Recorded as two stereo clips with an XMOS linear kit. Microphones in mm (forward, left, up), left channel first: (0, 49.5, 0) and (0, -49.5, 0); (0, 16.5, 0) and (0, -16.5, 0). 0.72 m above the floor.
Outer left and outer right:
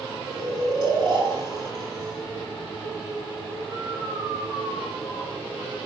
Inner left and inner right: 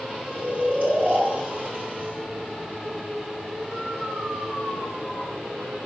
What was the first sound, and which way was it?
Snoring, 45° right (ahead or behind).